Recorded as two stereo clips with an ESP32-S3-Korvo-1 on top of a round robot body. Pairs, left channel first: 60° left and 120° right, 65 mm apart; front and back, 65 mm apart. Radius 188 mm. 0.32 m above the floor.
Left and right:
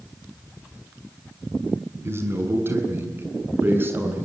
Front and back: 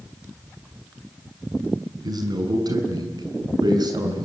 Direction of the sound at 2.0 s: 170° right.